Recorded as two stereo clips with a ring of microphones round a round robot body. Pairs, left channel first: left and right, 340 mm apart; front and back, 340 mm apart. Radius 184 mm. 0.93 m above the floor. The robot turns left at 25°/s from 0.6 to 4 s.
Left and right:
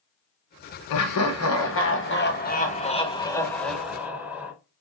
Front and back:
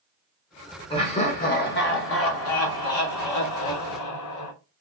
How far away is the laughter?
About 0.7 m.